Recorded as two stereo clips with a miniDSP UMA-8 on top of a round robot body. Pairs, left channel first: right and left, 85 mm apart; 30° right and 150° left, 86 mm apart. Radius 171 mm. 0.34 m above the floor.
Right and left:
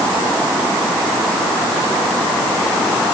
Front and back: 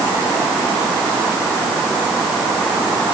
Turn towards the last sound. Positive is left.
No sound to turn to.